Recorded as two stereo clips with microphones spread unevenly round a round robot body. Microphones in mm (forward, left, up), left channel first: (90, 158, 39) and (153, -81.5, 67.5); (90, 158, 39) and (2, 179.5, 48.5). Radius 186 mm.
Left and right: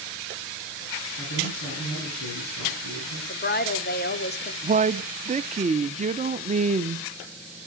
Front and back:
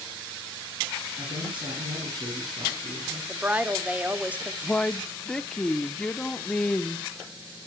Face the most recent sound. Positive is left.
turn(degrees=-55)